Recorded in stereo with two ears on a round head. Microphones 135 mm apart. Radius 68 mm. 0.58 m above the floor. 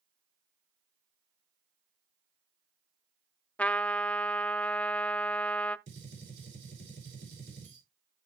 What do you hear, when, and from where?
3.6 s a trumpet: 10° left (ahead or behind), 0.5 m
5.9 s a gunshot: 80° right, 7 m